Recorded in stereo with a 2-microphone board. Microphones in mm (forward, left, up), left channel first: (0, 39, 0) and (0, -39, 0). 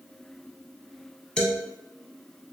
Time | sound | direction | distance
1.4 | a man speaking | 10° left (ahead or behind) | 1.1 m